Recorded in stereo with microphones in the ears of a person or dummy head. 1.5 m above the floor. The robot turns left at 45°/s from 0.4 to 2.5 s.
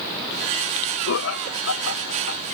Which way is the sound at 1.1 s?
65° left (ahead or behind).